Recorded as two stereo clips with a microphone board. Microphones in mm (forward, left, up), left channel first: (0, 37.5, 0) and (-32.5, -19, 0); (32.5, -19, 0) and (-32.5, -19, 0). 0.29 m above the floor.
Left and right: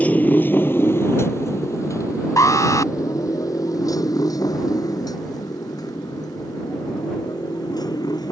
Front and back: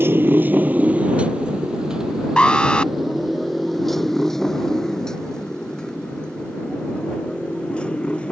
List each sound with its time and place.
0.0 s a motorcycle: 125° left; by 8.3 s 75° left
2.4 s an alarm: 70° left